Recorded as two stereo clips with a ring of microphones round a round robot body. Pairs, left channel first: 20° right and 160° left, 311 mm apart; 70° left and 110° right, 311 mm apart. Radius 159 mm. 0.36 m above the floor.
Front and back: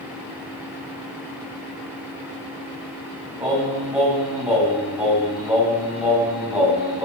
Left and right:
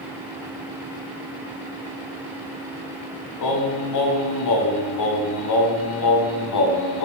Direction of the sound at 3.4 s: 70° left.